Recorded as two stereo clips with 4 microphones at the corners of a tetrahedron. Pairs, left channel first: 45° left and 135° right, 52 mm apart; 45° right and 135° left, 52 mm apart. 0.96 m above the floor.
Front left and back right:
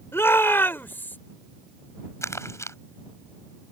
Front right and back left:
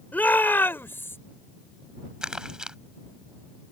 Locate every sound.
0.1 s a shout: 10° left; by 1.2 s 5° right
2.2 s crumpling: 60° left